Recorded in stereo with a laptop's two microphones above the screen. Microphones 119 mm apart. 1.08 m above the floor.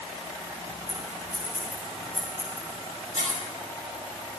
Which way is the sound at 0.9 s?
40° left (ahead or behind).